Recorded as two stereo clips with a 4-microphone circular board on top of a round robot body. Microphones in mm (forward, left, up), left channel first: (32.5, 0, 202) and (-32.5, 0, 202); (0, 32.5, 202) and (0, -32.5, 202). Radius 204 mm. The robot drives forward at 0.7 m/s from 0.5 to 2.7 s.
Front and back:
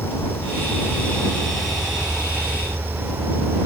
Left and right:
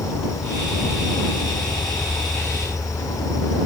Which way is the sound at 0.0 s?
55° left.